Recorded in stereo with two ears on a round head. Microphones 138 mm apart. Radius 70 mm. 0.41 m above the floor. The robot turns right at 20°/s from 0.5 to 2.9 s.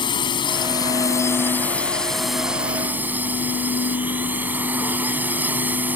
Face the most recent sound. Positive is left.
turn(degrees=-170)